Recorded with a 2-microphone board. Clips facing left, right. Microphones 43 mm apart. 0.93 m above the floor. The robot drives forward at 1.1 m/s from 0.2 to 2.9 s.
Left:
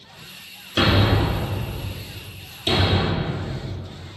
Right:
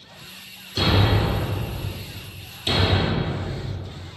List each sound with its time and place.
0.8 s a thud: 55° left (ahead or behind), 1.3 m; by 3.3 s 20° left (ahead or behind), 3 m